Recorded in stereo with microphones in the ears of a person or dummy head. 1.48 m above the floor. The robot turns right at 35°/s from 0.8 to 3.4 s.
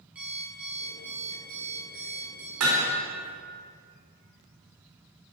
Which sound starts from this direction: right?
Hammering, at 2.6 s.